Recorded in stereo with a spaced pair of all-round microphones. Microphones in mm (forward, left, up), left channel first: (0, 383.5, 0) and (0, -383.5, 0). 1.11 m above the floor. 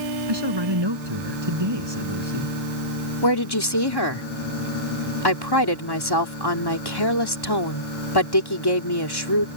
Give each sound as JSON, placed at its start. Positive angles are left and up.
{"t": 0.3, "sound": "a man speaking", "side_deg": -30}
{"t": 3.2, "sound": "a woman speaking", "side_deg": 30}